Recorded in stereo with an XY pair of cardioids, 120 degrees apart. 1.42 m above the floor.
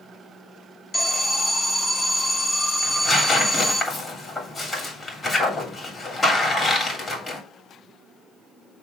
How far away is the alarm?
About 1.2 m.